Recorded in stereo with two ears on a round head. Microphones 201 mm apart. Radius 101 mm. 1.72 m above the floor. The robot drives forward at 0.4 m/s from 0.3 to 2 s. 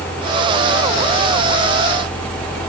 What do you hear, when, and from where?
Only background noise.